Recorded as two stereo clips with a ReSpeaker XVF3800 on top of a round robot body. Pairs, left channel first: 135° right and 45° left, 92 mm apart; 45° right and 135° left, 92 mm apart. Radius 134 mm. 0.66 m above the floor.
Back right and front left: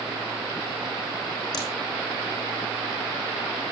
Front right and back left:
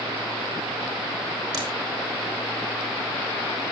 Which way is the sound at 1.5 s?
Straight behind.